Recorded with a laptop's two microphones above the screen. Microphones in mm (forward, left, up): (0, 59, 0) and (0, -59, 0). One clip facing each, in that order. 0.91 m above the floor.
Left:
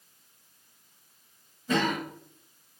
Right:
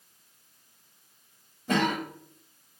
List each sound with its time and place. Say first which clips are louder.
1.7 s a cough: right 1 dB; 65° right (ahead or behind), 1.9 m